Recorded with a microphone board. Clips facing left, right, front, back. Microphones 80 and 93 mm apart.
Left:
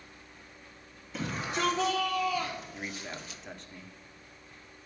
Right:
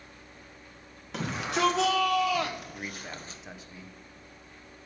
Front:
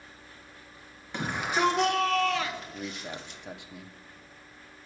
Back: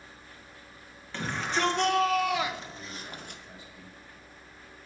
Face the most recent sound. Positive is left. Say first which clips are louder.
# even, front 5 dB
turn(degrees=-5)